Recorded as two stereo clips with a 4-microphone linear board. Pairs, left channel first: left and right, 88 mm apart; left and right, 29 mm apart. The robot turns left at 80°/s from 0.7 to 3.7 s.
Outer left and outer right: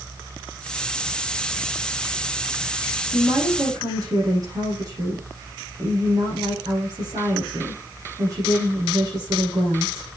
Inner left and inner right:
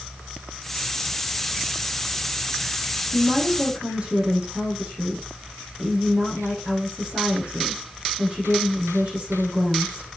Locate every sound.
3.1 s a woman speaking: 5° left, 7.5 m; by 10.1 s 45° right, 7.5 m